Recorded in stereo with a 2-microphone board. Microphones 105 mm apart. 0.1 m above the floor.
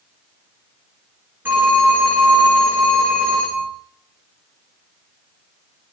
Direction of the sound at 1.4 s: 15° right (ahead or behind).